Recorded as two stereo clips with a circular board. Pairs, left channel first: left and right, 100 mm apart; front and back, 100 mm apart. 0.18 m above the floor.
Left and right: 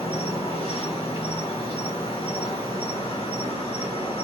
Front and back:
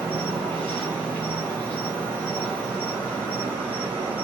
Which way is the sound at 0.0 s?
80° left.